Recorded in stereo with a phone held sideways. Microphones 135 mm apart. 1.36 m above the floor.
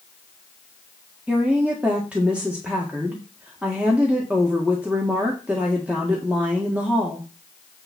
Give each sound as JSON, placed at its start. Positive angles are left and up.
{"t": 1.3, "sound": "a woman speaking", "side_deg": -10, "distance_m": 1.6}